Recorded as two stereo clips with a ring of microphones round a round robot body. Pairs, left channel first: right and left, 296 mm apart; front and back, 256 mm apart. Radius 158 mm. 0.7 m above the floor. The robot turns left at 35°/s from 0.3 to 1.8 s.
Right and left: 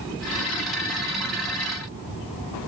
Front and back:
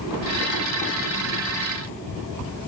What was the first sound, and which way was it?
Only background noise.